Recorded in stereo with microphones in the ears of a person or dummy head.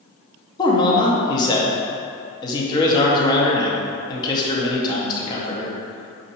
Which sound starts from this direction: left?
A man speaking, at 0.6 s.